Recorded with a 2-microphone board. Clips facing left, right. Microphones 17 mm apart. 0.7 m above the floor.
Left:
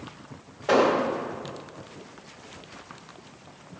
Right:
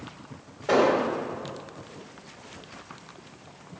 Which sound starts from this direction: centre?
An explosion, at 0.7 s.